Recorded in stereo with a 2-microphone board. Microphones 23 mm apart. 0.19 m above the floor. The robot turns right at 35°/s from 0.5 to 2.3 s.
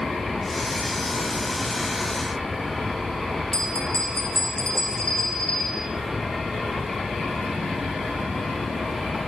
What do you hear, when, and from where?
3.5 s a bell: 40° left (ahead or behind), 6 m